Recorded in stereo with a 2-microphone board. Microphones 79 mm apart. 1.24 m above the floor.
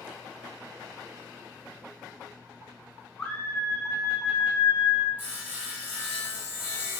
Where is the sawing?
20° right (ahead or behind), 1.3 m.